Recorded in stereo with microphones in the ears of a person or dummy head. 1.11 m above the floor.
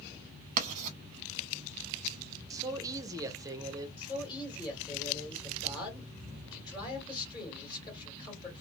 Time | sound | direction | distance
0.6 | writing | 40° right (ahead or behind) | 0.7 m
2.5 | a man speaking | 15° right (ahead or behind) | 0.6 m
4.0 | a man speaking | 25° left (ahead or behind) | 1.9 m